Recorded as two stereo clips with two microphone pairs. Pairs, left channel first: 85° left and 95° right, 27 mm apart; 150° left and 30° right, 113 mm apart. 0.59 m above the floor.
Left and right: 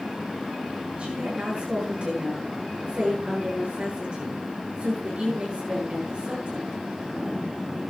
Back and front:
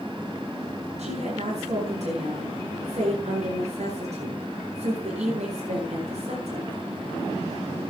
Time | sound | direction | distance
1.0 | a woman speaking | 50° right | 9.5 m